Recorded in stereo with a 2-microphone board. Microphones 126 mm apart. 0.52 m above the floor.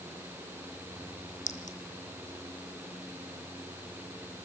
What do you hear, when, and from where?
1.5 s a clink: 80° left, 2.5 m